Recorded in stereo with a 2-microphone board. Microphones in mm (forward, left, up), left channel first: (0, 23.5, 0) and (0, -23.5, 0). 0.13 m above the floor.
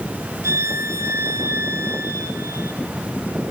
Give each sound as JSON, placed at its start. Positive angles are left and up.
{"t": 0.4, "sound": "a violin", "side_deg": -70, "distance_m": 4.5}